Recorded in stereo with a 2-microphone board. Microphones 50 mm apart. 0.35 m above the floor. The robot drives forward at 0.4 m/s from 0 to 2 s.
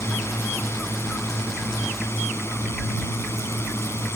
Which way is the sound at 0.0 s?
65° left (ahead or behind).